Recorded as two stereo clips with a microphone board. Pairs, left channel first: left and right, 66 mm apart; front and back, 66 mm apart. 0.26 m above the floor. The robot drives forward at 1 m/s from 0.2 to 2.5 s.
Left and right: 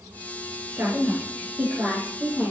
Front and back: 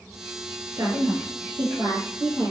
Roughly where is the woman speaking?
Behind right.